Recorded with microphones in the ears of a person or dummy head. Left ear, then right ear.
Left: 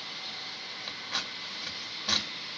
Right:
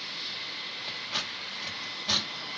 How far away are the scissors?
About 1.7 m.